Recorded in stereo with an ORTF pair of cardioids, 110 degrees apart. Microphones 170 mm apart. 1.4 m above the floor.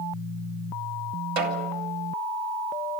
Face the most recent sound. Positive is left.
turn(degrees=-70)